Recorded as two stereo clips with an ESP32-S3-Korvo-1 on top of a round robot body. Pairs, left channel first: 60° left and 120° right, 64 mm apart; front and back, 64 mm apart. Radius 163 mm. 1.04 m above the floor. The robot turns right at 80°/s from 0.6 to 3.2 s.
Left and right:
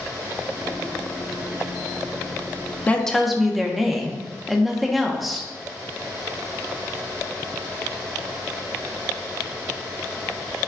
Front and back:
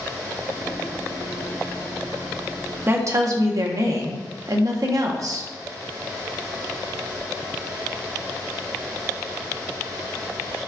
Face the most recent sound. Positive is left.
turn(degrees=150)